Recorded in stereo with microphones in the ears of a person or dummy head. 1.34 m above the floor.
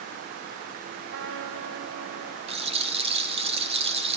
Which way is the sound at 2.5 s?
30° right (ahead or behind).